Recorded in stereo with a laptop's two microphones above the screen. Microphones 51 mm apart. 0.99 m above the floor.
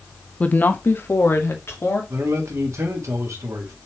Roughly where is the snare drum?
No snare drum in this recording.